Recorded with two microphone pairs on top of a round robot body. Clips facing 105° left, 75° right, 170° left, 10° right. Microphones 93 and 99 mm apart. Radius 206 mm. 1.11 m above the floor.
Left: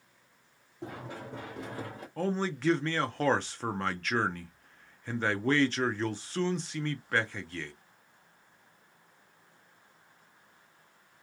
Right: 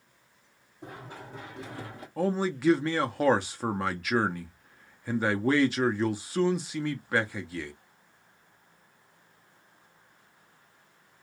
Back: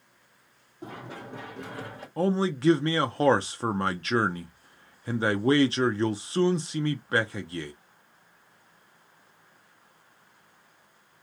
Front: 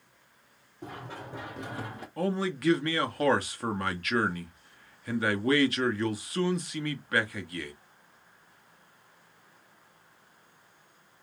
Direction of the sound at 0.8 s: 100° left.